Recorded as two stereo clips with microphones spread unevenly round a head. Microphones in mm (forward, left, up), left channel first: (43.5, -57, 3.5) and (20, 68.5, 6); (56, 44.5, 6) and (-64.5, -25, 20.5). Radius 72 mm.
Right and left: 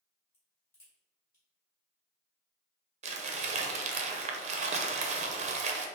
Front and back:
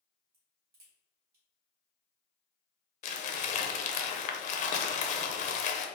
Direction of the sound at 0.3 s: 150° right.